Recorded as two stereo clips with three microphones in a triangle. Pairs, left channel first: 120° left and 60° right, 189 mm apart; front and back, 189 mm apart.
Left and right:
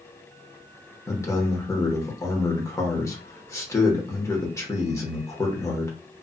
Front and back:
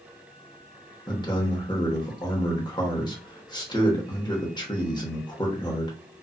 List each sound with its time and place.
1.1 s a man speaking: 55° left, 1.0 m